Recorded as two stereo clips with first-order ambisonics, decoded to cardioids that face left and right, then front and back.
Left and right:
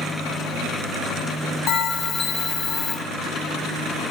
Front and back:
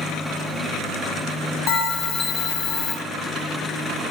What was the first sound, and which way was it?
A bell, 35° left.